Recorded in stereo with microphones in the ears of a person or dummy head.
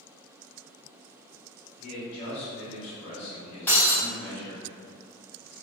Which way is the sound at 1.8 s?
35° left (ahead or behind).